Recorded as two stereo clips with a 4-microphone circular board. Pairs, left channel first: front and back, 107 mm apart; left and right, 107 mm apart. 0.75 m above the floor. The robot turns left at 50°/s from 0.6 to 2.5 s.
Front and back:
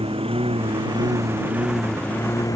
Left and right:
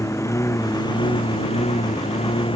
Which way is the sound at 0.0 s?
150° left.